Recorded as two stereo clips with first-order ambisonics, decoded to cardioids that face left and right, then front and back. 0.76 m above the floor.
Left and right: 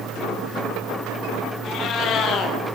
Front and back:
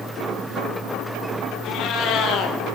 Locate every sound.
1.6 s a cat meowing: 45° left, 1.8 m